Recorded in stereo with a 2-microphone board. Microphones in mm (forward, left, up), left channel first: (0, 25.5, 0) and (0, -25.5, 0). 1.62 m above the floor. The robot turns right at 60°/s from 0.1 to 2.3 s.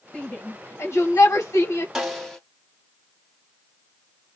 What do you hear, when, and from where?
0.1 s a shout: 15° left (ahead or behind), 1.6 m; by 1.9 s 60° left (ahead or behind), 1.6 m
1.9 s a snare drum: 10° right (ahead or behind), 1.3 m; by 2.4 s 5° left (ahead or behind), 1.3 m